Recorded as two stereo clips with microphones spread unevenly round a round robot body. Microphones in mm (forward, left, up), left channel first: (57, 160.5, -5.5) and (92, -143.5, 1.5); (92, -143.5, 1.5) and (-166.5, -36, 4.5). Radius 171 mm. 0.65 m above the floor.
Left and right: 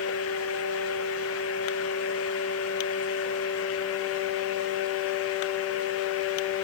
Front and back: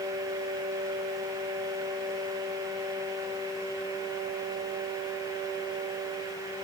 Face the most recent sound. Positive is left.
No sound to turn to.